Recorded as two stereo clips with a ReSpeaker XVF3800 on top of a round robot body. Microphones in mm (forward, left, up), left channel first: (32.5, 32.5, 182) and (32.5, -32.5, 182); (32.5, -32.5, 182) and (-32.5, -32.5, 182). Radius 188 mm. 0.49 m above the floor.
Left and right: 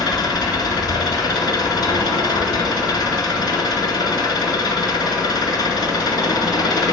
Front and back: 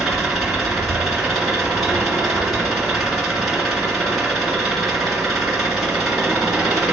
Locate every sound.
0.0 s an engine running: 90° left, 2 m